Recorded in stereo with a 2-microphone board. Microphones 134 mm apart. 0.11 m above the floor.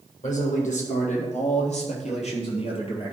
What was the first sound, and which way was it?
A man speaking, 65° left (ahead or behind).